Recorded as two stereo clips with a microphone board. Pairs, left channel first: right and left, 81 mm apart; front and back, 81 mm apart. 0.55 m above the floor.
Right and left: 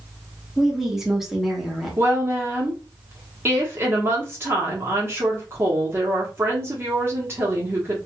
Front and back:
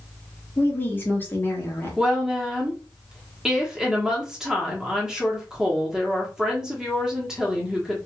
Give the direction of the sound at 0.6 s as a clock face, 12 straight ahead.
12 o'clock.